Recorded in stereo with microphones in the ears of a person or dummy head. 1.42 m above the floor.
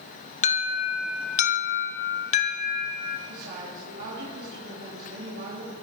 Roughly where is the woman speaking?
Right.